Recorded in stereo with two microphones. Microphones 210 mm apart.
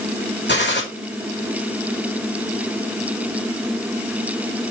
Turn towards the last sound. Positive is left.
turn(degrees=55)  # may be behind; listen again after turning